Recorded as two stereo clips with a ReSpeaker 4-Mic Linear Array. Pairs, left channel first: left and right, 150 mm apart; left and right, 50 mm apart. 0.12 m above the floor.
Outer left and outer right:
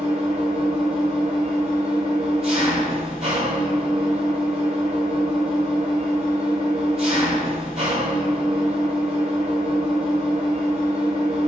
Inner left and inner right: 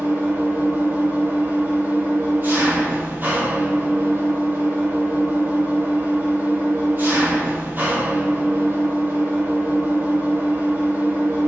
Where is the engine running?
45° right (ahead or behind), 1.0 m.